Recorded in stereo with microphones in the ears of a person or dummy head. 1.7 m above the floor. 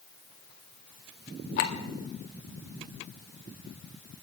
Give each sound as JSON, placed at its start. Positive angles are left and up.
{"t": 1.6, "sound": "a clink", "side_deg": 55, "distance_m": 1.6}